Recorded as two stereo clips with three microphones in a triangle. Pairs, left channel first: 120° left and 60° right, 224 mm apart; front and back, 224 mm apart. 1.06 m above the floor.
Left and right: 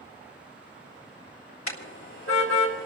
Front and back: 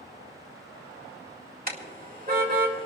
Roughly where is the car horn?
Behind left.